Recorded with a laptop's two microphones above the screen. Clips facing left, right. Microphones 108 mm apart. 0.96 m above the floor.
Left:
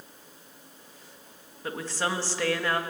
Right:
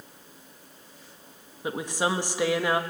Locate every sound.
1.6 s a woman speaking: 15° right (ahead or behind), 1.1 m